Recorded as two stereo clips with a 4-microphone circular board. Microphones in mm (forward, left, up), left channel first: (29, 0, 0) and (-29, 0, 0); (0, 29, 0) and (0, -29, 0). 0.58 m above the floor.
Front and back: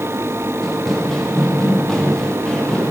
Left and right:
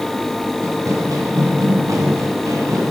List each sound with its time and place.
0.6 s running footsteps: 85° right, 5.5 m; by 2.9 s 75° right, 6.5 m